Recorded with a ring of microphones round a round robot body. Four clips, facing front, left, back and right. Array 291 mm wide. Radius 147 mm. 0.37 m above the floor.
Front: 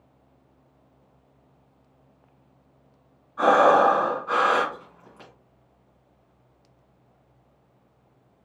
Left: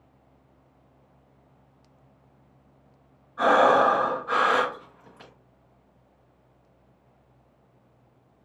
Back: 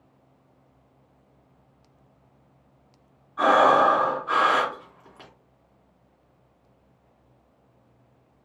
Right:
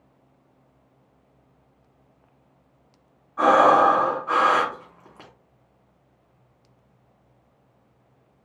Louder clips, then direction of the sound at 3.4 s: Right 3 dB, front 1 dB; 105° right.